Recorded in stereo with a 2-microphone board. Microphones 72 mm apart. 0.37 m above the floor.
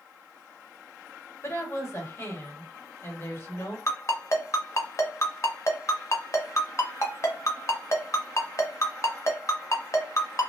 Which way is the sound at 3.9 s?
45° left (ahead or behind).